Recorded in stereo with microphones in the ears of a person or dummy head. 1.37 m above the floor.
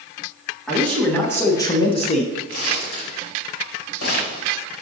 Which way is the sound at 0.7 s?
Centre (ahead or behind).